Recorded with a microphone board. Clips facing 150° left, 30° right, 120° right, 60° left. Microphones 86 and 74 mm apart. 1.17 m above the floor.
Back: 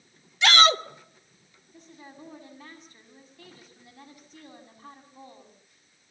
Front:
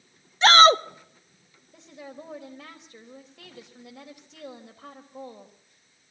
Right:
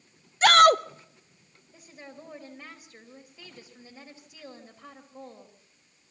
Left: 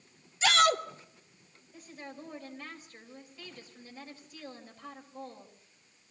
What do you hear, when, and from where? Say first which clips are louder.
0.4 s a shout: front 5 dB, right 8 dB; 85° right, 0.8 m
1.7 s a woman speaking: front 5 dB, left 1 dB; 40° right, 4.5 m